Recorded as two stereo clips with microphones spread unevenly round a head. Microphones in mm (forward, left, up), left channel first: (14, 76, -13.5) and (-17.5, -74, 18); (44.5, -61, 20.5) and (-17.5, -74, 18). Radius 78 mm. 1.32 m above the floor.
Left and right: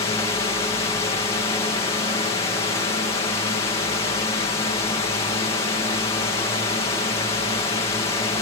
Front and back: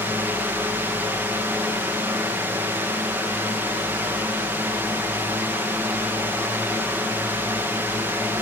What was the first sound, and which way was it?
A drone, 135° left.